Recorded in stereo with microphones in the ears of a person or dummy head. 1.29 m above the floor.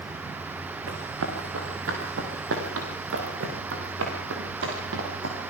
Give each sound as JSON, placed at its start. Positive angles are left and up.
{"t": 0.9, "sound": "running footsteps", "side_deg": -75, "distance_m": 6.5}